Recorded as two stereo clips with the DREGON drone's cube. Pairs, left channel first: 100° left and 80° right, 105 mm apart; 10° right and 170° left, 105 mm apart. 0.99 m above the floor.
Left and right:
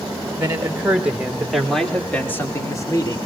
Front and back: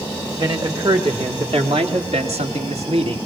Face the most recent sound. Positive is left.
turn(degrees=150)